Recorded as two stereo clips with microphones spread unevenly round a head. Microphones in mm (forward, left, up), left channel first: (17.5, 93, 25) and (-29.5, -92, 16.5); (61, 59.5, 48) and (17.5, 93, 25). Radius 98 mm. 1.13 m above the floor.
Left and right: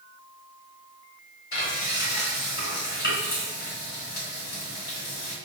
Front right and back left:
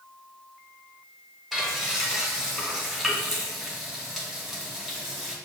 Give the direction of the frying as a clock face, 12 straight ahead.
11 o'clock.